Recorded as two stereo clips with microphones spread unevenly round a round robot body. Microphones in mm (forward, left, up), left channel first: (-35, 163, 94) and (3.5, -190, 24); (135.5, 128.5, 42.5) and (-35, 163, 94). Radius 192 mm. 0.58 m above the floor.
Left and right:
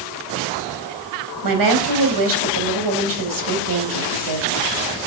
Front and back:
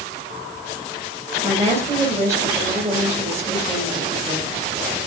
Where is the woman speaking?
105° right, 4 m.